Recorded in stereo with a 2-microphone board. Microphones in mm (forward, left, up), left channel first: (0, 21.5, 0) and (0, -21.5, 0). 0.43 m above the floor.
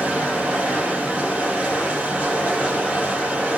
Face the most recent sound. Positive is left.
turn(degrees=-35)  # may be behind; listen again after turning